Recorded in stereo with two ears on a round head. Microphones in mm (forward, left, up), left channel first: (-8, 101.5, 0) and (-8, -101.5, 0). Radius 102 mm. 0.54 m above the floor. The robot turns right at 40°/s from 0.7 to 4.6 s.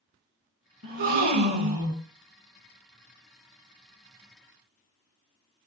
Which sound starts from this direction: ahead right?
A gasp, at 0.8 s.